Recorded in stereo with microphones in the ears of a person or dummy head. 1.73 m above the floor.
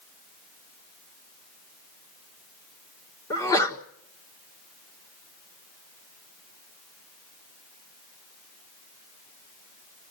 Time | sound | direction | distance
3.3 | a sneeze | 25° left (ahead or behind) | 1.5 m